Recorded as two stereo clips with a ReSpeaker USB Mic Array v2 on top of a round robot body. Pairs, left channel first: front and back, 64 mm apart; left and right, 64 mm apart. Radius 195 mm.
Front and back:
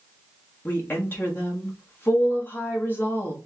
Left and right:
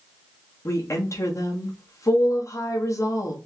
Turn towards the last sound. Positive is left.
turn(degrees=55)